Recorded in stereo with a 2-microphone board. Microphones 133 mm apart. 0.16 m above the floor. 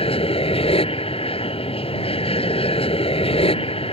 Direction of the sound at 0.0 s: 45° left (ahead or behind).